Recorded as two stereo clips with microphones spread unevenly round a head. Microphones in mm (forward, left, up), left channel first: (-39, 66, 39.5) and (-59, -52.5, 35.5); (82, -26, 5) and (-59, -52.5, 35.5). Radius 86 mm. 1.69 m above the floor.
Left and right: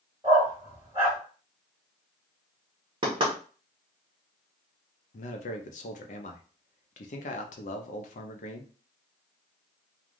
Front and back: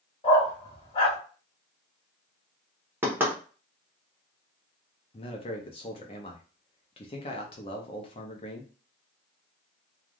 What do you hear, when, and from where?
0.2 s a dog barking: 35° right, 1.8 m
3.0 s knocking: 120° right, 1.0 m
5.1 s a man speaking: 75° left, 0.5 m